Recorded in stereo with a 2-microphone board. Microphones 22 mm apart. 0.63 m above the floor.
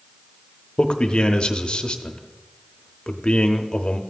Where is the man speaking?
45° left (ahead or behind), 0.8 m.